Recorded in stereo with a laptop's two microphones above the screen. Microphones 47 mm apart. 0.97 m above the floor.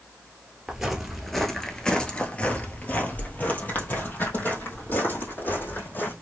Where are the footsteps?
10° right (ahead or behind), 1.0 m; by 6.1 s 45° left (ahead or behind), 2.5 m.